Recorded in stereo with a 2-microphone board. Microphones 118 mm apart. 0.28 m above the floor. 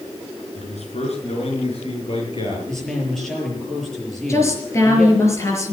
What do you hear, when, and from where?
0.6 s a man speaking: 70° left (ahead or behind), 4.5 m; by 2.6 s 50° left (ahead or behind), 6.5 m
2.7 s a man speaking: 5° left (ahead or behind), 6.5 m
4.3 s a woman speaking: 25° left (ahead or behind), 5.5 m